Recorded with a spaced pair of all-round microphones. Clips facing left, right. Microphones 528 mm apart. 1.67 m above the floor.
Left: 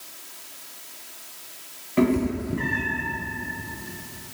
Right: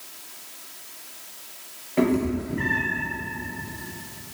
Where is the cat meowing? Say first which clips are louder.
Left 1 dB; 25° left (ahead or behind), 1.6 m.